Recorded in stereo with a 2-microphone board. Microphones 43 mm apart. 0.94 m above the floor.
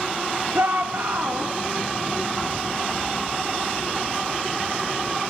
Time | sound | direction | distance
0.5 | a shout | 80° right | 1.9 m